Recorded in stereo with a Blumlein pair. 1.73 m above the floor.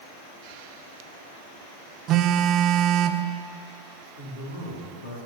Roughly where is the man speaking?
Ahead left.